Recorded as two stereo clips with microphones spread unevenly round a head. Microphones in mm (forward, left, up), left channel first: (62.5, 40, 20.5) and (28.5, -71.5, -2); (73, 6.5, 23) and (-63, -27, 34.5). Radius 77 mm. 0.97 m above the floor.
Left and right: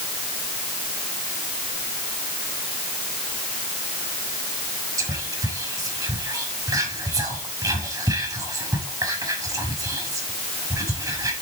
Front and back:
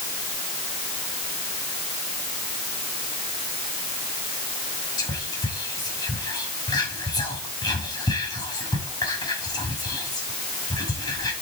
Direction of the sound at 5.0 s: 50° right.